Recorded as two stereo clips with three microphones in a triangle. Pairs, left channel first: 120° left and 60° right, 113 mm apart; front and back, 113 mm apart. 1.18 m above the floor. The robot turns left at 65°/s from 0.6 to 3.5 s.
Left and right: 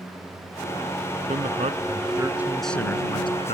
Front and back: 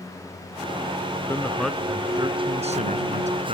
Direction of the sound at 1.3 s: 65° right.